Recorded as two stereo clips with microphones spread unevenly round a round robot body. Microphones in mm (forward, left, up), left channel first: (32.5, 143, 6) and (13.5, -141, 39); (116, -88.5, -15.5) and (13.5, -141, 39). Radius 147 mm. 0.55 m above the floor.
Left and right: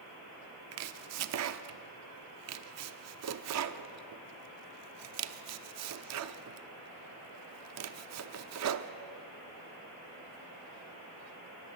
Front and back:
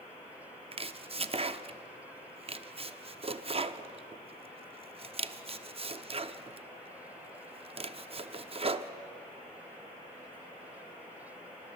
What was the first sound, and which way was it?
Chopping, 100° right.